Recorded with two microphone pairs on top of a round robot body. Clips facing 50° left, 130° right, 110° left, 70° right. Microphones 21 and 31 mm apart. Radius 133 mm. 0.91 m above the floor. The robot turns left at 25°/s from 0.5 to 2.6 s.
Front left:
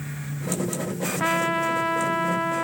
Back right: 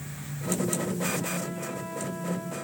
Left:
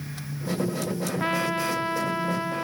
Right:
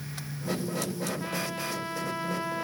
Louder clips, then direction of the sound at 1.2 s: Front left 10 dB, left 7 dB; 65° left.